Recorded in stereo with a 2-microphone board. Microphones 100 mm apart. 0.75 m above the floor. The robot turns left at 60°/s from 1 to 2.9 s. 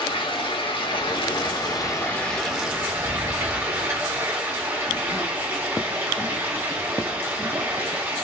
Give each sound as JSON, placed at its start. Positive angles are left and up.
{"t": 0.0, "sound": "running water", "azimuth_deg": 90, "distance_m": 1.0}